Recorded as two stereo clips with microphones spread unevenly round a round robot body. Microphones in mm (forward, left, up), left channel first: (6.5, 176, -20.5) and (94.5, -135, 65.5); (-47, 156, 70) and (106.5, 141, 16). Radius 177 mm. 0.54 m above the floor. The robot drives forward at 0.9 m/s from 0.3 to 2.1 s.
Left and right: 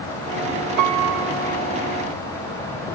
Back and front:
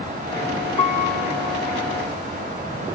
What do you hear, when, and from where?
0.8 s a piano: 115° right; by 1.6 s 150° right